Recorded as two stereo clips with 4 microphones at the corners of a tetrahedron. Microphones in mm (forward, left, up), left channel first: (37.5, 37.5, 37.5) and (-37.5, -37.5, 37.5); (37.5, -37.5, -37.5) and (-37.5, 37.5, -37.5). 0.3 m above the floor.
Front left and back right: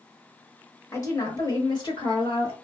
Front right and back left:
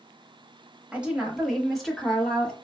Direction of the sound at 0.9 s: 70° left.